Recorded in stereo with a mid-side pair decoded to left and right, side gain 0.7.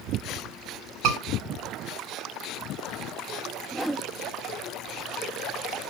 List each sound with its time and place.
1.0 s a scream: 60° right, 3.5 m
3.7 s a whoosh: 10° right, 0.8 m